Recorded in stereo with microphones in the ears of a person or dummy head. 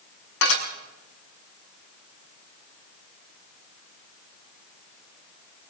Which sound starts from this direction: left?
Dishes clattering, at 0.4 s.